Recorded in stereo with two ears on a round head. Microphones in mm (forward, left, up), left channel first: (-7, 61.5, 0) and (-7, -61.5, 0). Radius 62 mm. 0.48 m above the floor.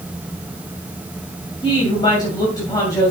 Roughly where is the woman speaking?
Left.